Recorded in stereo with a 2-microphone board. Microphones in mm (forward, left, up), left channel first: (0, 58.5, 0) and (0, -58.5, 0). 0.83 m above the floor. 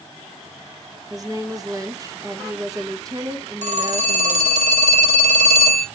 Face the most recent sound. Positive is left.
turn(degrees=-75)  # may be behind; listen again after turning